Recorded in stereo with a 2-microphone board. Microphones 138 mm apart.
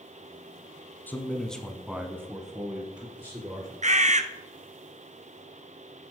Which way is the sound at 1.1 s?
15° left (ahead or behind).